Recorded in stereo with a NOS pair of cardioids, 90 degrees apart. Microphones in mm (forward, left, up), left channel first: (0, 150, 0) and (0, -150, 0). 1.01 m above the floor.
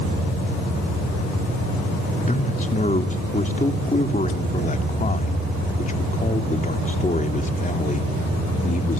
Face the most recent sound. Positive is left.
turn(degrees=25)